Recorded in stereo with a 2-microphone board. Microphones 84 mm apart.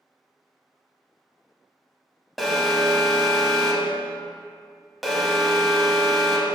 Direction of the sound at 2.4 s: Centre (ahead or behind).